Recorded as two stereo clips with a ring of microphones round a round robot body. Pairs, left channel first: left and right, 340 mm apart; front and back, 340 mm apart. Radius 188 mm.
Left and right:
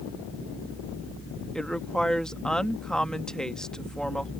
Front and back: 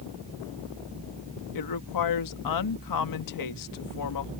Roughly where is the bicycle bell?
No bicycle bell in this recording.